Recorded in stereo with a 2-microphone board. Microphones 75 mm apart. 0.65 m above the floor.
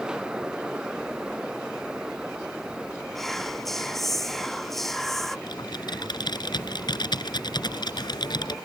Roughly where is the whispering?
Centre.